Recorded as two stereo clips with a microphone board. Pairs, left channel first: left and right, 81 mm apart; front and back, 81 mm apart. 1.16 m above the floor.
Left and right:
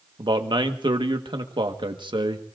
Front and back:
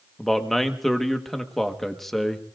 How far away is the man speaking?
About 1.4 m.